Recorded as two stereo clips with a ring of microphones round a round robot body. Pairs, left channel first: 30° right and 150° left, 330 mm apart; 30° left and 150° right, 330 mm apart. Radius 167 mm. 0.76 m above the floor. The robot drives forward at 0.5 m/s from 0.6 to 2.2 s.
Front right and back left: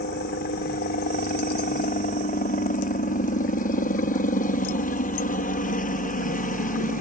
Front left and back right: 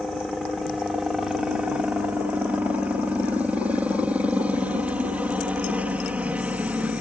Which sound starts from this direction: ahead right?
A helicopter, at 0.0 s.